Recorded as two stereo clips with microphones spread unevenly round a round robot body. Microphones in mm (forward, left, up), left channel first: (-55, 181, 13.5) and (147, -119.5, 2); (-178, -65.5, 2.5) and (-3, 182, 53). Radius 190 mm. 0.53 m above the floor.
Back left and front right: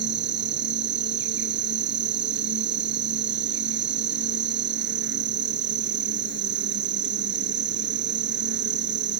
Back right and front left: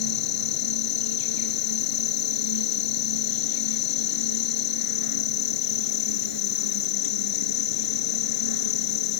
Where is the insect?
120° right.